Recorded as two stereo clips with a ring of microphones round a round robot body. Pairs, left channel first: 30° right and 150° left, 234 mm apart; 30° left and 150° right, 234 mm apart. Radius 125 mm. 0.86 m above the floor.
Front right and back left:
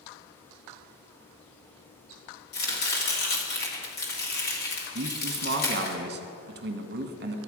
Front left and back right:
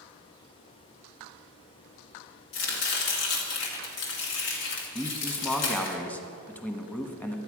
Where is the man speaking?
115° left, 1.2 m.